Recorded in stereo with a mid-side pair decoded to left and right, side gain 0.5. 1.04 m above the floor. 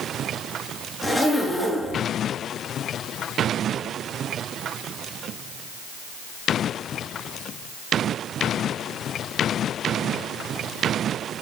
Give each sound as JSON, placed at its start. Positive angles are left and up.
{"t": 1.0, "sound": "a zipper", "azimuth_deg": 5, "distance_m": 7.5}